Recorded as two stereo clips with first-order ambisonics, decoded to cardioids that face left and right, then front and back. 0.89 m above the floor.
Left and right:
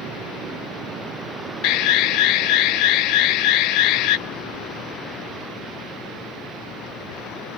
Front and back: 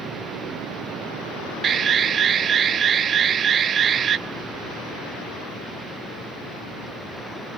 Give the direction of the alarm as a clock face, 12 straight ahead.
8 o'clock.